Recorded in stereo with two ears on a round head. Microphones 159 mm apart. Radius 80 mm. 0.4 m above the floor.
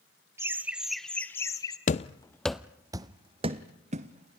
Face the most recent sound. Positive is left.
turn(degrees=-40)  # may be behind; listen again after turning